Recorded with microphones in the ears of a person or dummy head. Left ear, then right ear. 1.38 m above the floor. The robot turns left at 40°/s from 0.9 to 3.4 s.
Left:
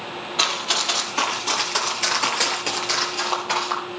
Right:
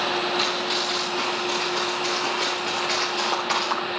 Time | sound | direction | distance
0.4 | running footsteps | 20° left (ahead or behind) | 2.5 m